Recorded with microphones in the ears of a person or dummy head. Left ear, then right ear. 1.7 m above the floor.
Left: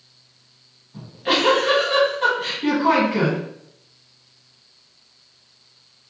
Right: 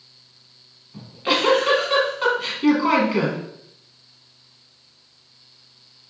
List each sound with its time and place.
0.9 s a giggle: 20° right (ahead or behind), 1.2 m